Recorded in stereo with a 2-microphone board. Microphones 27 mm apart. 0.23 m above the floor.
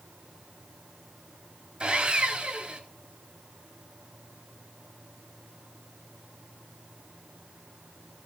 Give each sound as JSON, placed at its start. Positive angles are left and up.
{"t": 1.8, "sound": "sawing", "side_deg": -40, "distance_m": 3.5}